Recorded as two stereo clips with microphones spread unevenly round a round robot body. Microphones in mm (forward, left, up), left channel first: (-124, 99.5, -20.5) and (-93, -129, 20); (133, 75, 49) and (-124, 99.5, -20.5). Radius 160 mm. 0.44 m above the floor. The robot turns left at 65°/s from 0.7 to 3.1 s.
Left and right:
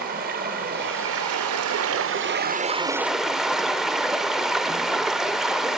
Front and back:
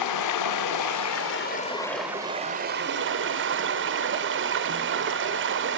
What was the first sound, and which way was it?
Running water, 20° right.